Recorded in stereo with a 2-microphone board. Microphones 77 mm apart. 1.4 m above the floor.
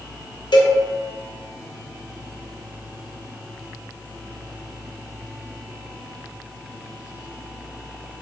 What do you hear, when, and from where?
0.5 s a cowbell: 75° left (ahead or behind), 0.6 m